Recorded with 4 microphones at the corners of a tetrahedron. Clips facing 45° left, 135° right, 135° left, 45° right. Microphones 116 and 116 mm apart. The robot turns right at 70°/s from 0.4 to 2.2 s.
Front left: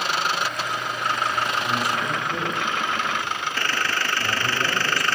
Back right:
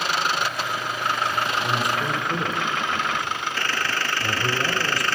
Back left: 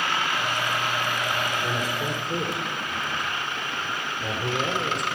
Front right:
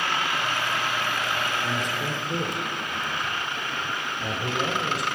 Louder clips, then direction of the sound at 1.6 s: Back right 1 dB, back left 1 dB; 170° right.